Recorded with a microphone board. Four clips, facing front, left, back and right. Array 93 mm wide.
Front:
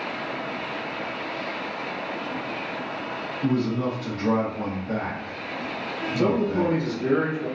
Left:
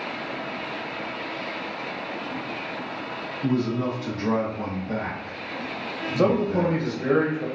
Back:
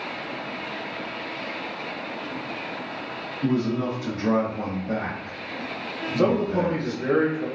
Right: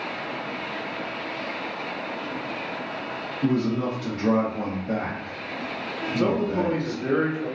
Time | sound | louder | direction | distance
3.4 | a man speaking | right 1 dB, back 1 dB | 110° right | 0.7 m
6.2 | a man speaking | left 2 dB, back 1 dB | 125° left | 0.6 m